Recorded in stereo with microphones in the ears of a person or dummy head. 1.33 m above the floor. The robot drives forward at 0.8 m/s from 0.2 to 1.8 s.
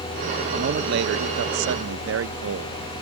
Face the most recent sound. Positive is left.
turn(degrees=-80)